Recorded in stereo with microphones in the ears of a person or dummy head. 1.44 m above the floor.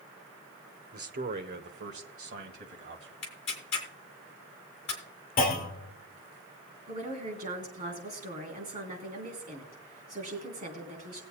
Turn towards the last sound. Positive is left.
turn(degrees=-30)  # may be behind; listen again after turning